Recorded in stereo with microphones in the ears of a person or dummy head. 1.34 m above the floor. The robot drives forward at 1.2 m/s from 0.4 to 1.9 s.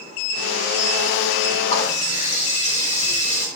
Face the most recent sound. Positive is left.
turn(degrees=35)  # may be behind; listen again after turning